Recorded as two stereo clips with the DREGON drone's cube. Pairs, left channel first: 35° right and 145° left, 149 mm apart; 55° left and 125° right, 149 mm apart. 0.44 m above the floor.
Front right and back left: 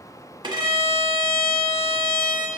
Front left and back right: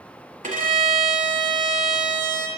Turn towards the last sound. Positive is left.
turn(degrees=-155)